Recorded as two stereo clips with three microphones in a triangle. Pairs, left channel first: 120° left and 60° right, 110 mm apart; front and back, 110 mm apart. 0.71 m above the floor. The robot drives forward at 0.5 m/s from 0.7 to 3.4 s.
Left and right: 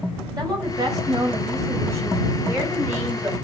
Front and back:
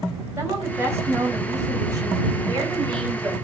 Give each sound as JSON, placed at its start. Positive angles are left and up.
{"t": 0.4, "sound": "a woman speaking", "azimuth_deg": -115, "distance_m": 3.5}